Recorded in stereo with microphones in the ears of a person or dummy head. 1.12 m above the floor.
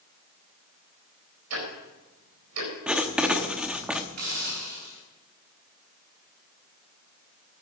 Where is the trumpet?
I don't hear a trumpet.